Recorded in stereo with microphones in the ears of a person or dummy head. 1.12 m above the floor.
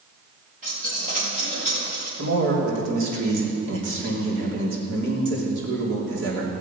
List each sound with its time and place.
0.6 s a dropped coin: 45° right (ahead or behind), 5.5 m
2.2 s a man speaking: 65° right (ahead or behind), 3 m